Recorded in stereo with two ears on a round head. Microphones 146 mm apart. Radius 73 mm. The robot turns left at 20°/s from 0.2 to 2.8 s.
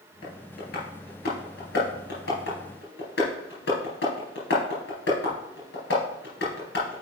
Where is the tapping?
50° left (ahead or behind), 3.5 m; by 7.0 s 80° left, 3.5 m.